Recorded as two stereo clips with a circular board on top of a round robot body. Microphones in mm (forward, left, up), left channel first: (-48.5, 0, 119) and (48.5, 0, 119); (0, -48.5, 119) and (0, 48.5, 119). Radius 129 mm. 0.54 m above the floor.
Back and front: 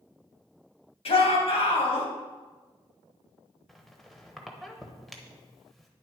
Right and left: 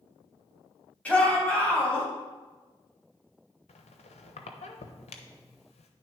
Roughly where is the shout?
Behind.